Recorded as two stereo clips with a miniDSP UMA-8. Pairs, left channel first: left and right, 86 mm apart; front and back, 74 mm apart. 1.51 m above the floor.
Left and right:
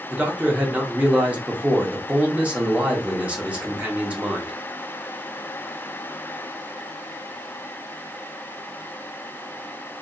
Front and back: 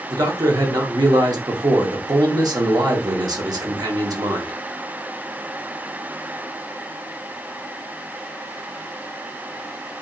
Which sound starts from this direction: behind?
A man speaking, at 0.1 s.